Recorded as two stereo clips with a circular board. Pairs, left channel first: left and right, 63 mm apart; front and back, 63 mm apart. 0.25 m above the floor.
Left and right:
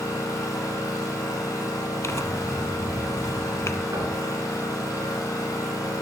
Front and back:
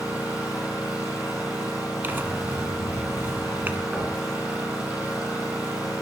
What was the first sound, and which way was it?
An engine running, 105° left.